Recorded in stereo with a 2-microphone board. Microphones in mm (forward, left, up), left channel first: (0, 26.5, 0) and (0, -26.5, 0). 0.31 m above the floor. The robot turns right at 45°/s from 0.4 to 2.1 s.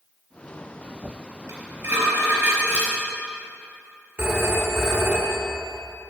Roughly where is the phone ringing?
Right.